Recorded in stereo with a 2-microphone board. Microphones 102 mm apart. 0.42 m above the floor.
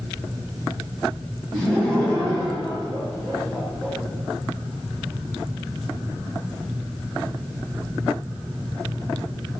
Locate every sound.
1.5 s laughter: 20° left (ahead or behind), 1.9 m